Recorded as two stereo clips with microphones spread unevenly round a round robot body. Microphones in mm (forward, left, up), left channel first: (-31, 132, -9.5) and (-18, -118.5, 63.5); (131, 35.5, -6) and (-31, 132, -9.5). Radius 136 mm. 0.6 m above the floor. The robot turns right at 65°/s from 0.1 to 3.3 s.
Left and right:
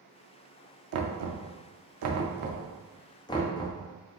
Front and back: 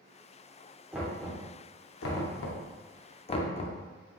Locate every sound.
0.9 s knocking: 125° right, 0.6 m; by 3.8 s 30° left, 0.6 m